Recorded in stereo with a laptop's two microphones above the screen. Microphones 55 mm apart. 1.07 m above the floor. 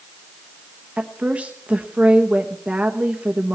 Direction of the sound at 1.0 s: 25° right (ahead or behind).